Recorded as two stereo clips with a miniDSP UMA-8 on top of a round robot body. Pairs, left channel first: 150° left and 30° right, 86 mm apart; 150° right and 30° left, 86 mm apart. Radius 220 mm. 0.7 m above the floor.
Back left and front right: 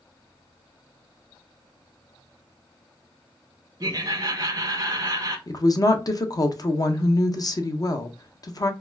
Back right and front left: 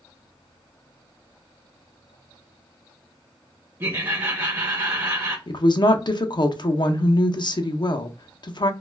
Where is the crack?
No crack in this recording.